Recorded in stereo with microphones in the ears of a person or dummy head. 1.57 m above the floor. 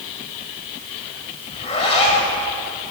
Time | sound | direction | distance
1.5 | a zipper | 30° left (ahead or behind) | 6.5 m